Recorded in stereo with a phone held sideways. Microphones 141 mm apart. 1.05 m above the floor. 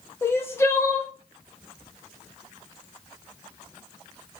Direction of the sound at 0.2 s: 20° left (ahead or behind).